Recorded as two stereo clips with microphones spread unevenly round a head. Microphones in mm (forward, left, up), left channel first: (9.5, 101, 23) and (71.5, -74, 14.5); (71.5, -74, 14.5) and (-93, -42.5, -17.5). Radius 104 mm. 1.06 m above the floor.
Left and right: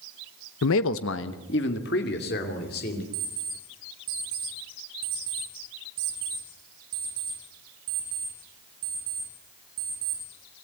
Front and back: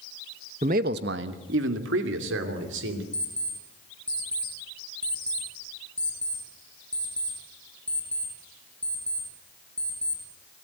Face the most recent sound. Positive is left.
turn(degrees=-90)